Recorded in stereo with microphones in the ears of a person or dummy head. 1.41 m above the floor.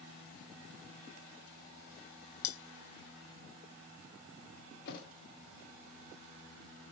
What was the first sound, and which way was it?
Cutlery clinking, 60° left (ahead or behind).